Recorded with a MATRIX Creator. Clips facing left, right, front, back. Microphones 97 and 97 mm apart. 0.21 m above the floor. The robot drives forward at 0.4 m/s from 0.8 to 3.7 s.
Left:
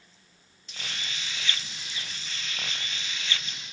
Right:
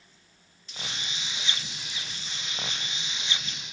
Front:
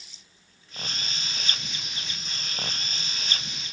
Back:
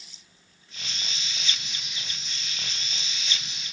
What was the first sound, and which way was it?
Only background noise.